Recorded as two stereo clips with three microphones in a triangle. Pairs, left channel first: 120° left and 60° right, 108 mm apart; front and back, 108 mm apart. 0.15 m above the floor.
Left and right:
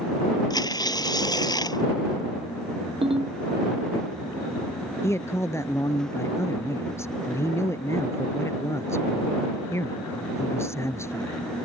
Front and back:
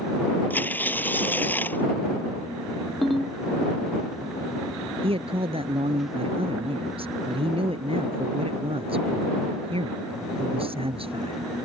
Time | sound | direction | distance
0.5 | tearing paper | 70° left | ?
3.0 | a ringtone | 90° right | ?
5.0 | a man speaking | straight behind | ?